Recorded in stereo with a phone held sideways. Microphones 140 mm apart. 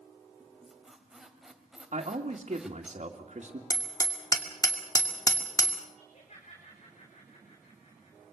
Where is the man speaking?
50° right (ahead or behind), 2 m.